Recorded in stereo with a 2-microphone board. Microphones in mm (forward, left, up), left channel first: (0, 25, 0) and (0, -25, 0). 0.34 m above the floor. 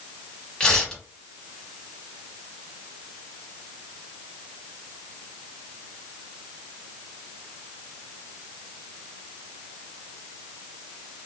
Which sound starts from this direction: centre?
Tearing paper, at 0.6 s.